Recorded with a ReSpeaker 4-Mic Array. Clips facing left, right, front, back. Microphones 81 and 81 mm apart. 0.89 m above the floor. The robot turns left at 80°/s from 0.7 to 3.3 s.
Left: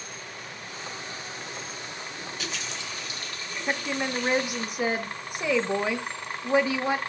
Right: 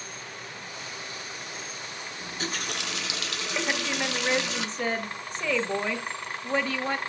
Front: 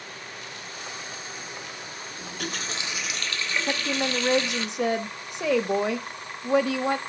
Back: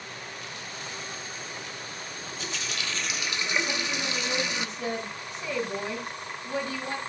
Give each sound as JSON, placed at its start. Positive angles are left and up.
{"t": 2.2, "sound": "a running tap", "azimuth_deg": -20, "distance_m": 0.7}
{"t": 3.7, "sound": "a woman speaking", "azimuth_deg": 10, "distance_m": 1.0}